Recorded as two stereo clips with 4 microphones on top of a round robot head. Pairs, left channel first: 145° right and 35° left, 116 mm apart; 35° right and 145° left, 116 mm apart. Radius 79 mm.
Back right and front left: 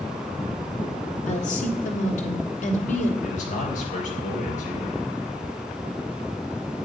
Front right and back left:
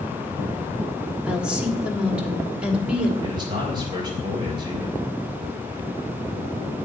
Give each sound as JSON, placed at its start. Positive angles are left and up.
{"t": 1.3, "sound": "a woman speaking", "azimuth_deg": -130, "distance_m": 3.0}
{"t": 3.2, "sound": "a man speaking", "azimuth_deg": -160, "distance_m": 5.0}